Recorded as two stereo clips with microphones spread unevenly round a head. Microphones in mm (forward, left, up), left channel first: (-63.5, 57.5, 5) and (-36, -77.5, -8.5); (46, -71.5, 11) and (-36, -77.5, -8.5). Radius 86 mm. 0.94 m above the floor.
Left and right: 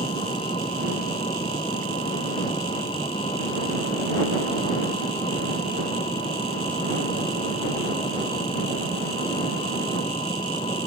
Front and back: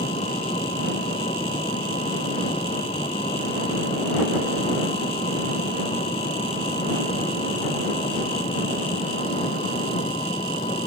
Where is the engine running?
35° left.